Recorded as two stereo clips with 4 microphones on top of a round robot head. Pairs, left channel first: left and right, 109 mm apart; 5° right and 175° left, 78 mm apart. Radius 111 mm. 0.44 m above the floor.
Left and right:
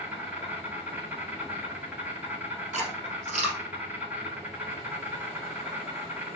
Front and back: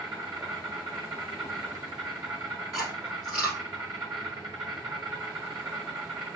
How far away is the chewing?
About 2 m.